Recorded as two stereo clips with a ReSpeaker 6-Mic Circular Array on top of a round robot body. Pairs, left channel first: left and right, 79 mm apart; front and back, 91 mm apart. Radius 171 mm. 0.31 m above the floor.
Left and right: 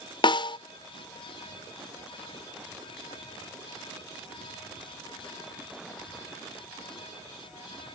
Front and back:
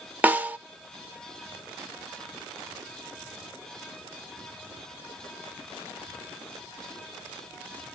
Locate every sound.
0.2 s a snare drum: 105° left, 0.5 m